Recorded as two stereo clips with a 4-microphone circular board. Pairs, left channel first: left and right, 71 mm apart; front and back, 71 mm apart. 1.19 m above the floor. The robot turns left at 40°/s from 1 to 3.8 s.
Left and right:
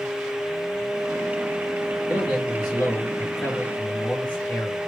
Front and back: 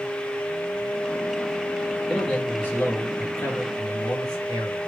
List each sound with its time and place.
2.1 s a man speaking: 90° left, 1.5 m; by 4.8 s 20° left, 1.5 m